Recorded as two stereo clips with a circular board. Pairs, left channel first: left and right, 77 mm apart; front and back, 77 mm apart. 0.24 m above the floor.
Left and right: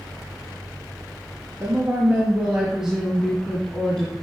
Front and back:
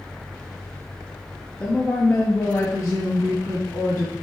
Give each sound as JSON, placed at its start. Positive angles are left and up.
{"t": 1.6, "sound": "a woman speaking", "azimuth_deg": -55, "distance_m": 1.2}